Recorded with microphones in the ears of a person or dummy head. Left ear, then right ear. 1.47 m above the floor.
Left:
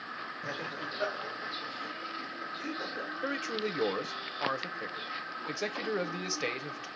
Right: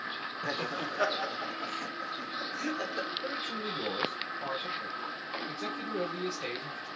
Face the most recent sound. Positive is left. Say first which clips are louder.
# left 1 dB
turn(degrees=60)  # may be behind; listen again after turning